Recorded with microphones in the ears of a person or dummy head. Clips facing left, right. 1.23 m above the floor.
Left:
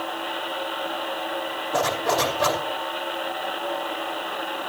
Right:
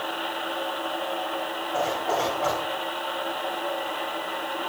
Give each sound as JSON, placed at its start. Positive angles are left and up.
{"t": 1.7, "sound": "a zipper", "side_deg": 85, "distance_m": 3.0}